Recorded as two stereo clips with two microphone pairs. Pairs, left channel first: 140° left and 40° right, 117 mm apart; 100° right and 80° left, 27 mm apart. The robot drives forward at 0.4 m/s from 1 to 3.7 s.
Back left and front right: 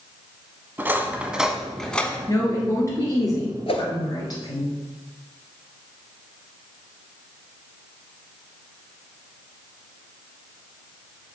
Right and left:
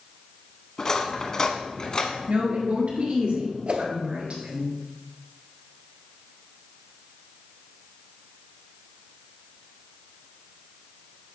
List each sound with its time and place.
0.8 s cutlery clinking: 80° right, 0.6 m; by 2.2 s 150° right, 0.7 m
2.3 s a woman speaking: 80° left, 2.5 m; by 4.7 s 95° left, 2.5 m
3.7 s a whoosh: 110° left, 0.8 m